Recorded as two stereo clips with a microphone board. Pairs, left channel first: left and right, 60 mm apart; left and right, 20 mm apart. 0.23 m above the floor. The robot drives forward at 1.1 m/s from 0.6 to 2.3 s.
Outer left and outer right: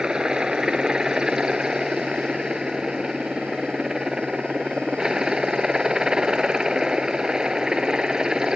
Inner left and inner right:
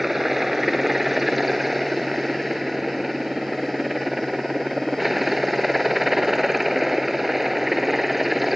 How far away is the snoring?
I don't hear snoring.